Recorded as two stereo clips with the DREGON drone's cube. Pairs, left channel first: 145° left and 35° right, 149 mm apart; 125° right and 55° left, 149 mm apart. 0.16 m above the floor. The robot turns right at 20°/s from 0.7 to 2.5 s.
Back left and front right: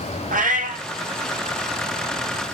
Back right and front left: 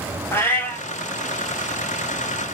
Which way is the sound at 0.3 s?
50° right.